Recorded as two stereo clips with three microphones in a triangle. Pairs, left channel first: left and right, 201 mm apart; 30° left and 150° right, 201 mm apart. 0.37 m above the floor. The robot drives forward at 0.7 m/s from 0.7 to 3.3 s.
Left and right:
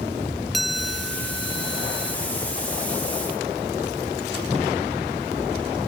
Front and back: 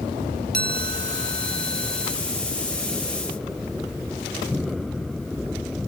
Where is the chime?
Straight behind.